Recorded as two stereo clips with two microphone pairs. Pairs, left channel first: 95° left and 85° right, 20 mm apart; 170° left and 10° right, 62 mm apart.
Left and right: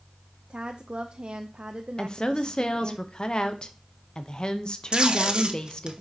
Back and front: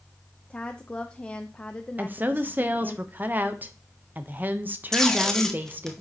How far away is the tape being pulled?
About 0.9 m.